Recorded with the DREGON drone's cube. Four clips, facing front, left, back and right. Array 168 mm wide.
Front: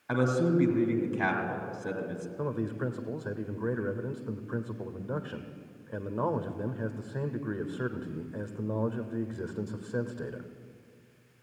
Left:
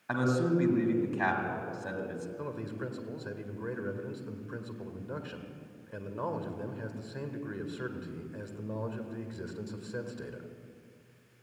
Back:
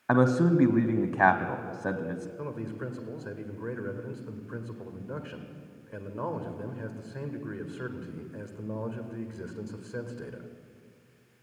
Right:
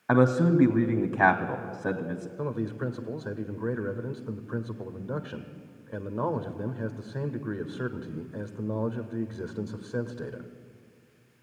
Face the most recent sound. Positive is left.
turn(degrees=-55)